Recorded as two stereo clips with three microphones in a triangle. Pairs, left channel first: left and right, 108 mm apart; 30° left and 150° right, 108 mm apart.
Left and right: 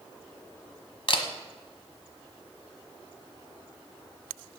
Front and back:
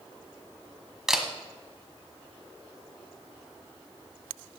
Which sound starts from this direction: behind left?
A camera shutter, at 1.1 s.